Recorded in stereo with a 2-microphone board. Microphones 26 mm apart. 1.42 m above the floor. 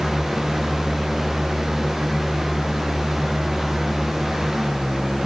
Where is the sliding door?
No sliding door in this recording.